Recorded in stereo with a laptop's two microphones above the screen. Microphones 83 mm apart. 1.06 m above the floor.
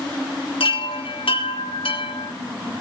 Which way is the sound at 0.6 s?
80° left.